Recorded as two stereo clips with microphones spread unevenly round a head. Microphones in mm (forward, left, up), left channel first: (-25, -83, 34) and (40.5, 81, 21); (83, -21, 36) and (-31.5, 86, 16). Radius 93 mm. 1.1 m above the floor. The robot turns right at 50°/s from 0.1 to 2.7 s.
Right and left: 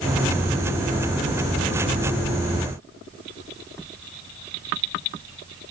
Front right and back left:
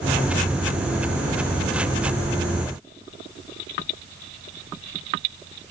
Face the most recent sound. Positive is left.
No sound to turn to.